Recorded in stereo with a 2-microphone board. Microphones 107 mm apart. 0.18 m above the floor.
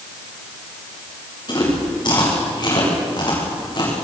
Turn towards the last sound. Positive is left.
turn(degrees=40)  # may be behind; listen again after turning